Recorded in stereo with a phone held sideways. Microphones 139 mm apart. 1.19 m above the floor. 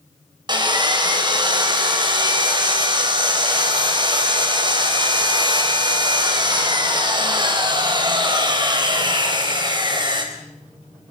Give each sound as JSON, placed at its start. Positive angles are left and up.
{"t": 0.5, "sound": "sawing", "side_deg": -30, "distance_m": 4.0}